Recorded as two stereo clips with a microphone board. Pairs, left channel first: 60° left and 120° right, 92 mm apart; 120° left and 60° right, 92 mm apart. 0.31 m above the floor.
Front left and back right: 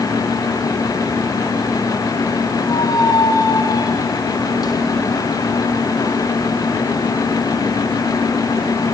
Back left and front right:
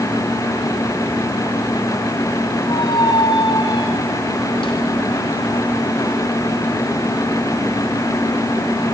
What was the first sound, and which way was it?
A squeak, 100° left.